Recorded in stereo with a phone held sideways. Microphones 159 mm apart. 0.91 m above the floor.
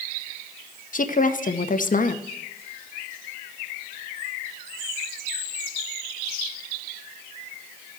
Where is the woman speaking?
55° left (ahead or behind), 0.8 m.